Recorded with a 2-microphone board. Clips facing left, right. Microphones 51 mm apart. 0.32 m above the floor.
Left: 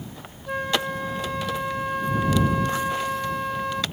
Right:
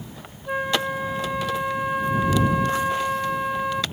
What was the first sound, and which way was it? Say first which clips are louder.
A flute: right 2 dB; 10° right (ahead or behind).